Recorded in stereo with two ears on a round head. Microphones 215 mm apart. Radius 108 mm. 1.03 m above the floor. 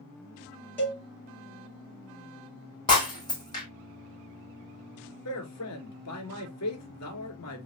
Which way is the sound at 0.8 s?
10° left (ahead or behind).